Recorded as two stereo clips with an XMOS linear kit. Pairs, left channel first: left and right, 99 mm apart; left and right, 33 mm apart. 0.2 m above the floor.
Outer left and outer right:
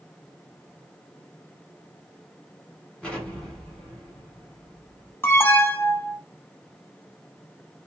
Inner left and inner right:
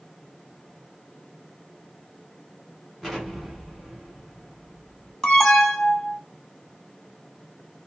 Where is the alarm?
20° left (ahead or behind), 0.8 m.